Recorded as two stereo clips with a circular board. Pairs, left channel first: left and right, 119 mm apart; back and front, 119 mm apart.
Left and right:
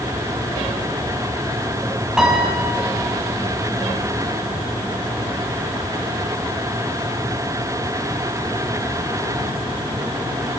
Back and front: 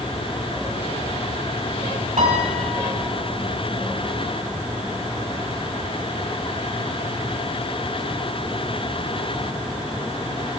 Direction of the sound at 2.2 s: 5° right.